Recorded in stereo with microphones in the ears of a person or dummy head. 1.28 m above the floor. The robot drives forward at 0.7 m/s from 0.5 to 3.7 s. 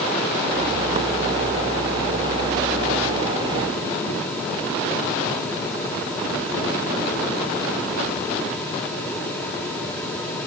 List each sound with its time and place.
Only background noise.